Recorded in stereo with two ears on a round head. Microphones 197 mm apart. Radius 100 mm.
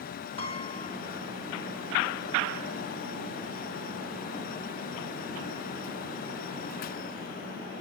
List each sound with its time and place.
0.4 s a piano: 25° left (ahead or behind), 2.5 m